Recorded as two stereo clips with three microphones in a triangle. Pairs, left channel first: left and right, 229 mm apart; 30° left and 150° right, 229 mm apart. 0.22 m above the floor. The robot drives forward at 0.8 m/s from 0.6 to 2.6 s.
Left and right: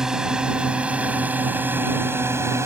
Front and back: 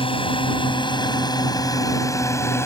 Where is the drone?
5° right; by 2.7 s 30° right.